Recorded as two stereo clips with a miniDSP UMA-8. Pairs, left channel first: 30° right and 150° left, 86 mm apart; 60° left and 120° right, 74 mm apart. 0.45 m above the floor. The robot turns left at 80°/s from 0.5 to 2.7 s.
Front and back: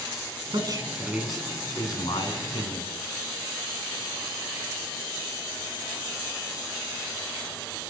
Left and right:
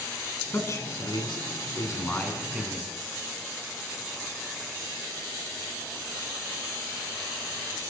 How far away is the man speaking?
About 4.5 m.